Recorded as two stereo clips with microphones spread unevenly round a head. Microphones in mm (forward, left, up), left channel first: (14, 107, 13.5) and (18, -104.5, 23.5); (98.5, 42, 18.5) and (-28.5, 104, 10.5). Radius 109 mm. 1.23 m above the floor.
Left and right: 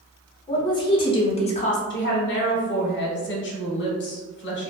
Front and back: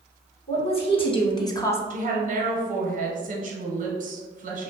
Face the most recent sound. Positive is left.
turn(degrees=130)